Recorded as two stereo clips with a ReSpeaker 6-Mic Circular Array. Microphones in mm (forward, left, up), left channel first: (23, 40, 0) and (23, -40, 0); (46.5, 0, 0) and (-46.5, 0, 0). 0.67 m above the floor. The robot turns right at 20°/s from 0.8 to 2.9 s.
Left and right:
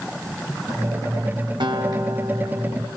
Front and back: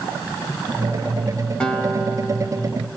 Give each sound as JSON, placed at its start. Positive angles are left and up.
{"t": 1.6, "sound": "a guitar", "azimuth_deg": -80, "distance_m": 3.5}